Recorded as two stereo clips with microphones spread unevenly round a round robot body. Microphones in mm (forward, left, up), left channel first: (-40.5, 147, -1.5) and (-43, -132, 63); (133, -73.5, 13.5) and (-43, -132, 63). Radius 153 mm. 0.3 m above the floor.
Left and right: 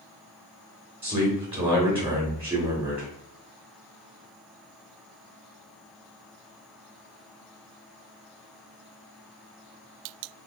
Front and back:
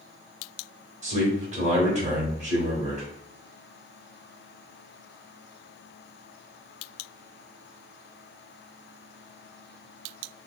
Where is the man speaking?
165° right, 1.0 m.